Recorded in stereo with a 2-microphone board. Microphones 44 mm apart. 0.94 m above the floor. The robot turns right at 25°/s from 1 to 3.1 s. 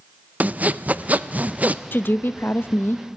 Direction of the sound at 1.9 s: 50° left (ahead or behind).